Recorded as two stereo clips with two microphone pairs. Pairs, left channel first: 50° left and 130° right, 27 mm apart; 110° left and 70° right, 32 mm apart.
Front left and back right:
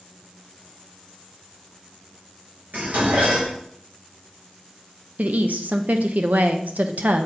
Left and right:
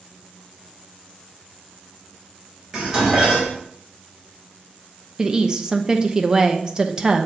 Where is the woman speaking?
135° right, 0.8 m.